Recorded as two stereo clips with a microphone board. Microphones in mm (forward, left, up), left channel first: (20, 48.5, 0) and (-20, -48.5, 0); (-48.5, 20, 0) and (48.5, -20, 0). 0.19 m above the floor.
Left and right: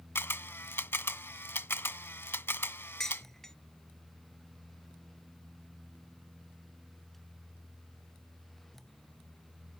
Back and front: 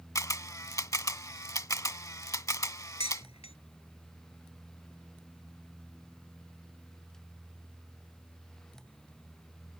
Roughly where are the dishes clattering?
Behind left.